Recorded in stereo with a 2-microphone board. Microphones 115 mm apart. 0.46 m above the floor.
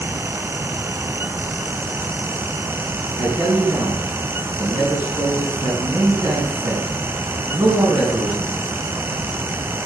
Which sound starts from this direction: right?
A man speaking, at 3.2 s.